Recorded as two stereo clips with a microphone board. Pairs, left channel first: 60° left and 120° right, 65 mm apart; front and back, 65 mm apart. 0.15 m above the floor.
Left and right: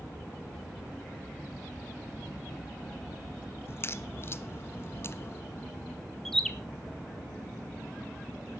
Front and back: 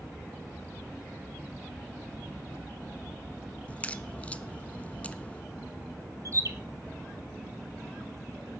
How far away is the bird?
About 1.2 m.